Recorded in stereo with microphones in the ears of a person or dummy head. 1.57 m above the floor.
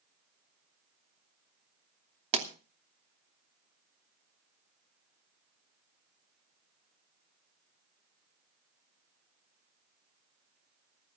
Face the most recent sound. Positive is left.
turn(degrees=-35)  # may be behind; listen again after turning